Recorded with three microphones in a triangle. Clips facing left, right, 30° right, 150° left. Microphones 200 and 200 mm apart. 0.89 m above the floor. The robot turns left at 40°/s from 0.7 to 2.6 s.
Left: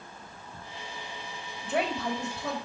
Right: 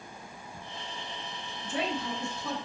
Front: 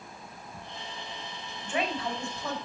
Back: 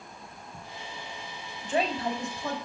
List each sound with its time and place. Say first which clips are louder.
1.6 s a woman speaking: left 3 dB, back 3 dB; 105° left, 4.5 m; by 2.6 s 65° left, 4.5 m